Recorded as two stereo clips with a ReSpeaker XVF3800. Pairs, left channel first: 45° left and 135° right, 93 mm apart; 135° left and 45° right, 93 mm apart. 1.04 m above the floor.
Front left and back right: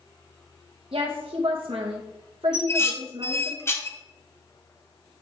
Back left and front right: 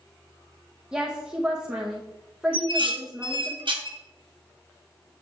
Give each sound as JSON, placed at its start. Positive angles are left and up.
{"t": 0.9, "sound": "a woman speaking", "azimuth_deg": -125, "distance_m": 1.0}
{"t": 2.5, "sound": "dishes clattering", "azimuth_deg": -20, "distance_m": 1.0}